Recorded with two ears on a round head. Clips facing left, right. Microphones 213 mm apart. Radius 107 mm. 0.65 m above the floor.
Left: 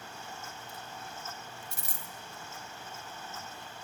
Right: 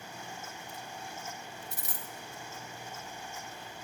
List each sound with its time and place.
1.7 s a dropped coin: 25° left (ahead or behind), 0.5 m